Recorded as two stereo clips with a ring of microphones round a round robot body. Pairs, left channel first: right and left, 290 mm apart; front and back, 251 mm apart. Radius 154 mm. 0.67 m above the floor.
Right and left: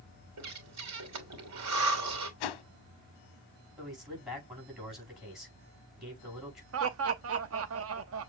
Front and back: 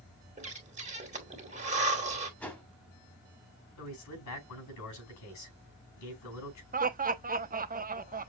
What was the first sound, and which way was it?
Breathing, 120° left.